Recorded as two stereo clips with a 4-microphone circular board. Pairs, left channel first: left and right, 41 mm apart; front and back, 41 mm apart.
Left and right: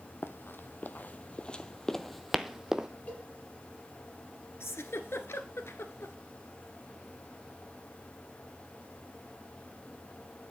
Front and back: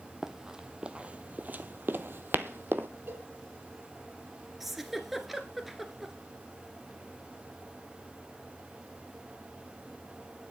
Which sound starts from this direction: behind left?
A cowbell, at 3.1 s.